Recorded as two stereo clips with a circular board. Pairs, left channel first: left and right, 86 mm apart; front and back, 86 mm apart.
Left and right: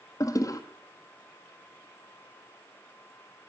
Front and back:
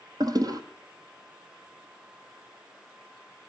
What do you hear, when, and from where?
0.2 s a toilet flushing: 140° left, 1.3 m